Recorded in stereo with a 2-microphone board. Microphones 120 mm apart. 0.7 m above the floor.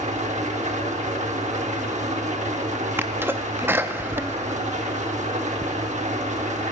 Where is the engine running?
80° right, 1.0 m.